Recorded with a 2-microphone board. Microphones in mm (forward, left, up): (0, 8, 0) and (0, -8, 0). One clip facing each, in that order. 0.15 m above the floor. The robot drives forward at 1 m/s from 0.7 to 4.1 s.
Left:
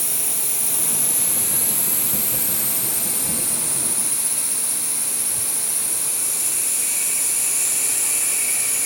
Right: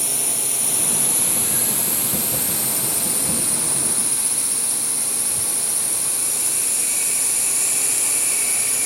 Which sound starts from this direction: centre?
A drone, at 0.0 s.